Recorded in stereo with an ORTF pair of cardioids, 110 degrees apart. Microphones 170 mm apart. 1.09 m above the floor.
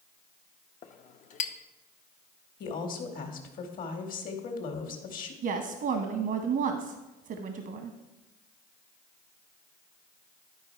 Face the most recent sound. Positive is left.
turn(degrees=-60)